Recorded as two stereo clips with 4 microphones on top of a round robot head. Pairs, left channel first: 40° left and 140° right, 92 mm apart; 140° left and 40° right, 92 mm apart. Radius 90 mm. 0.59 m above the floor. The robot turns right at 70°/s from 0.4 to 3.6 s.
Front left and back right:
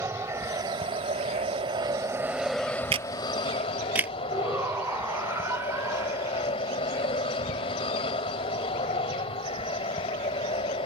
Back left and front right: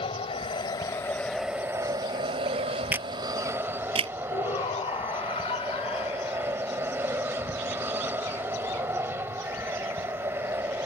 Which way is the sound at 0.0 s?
160° left.